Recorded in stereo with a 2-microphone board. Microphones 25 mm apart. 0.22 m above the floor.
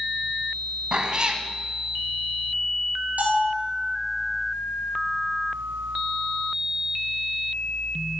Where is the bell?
75° right (ahead or behind), 2.5 m.